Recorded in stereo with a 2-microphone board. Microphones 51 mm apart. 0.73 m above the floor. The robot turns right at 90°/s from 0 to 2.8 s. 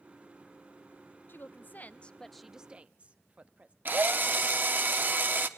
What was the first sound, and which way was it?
A woman speaking, 80° left.